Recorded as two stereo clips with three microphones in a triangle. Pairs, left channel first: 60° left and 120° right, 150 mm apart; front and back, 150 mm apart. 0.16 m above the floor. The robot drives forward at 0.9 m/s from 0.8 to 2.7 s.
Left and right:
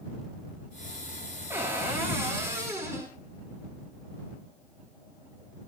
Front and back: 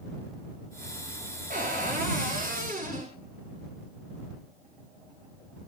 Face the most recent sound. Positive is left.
turn(degrees=170)